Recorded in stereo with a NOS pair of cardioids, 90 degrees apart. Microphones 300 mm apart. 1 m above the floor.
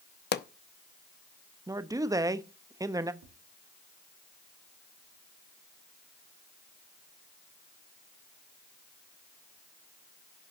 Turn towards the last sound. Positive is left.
turn(degrees=-65)